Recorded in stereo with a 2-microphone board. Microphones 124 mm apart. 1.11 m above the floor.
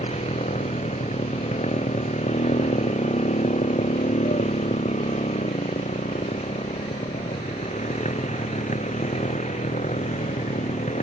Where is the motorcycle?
70° left (ahead or behind); by 11.0 s 90° left.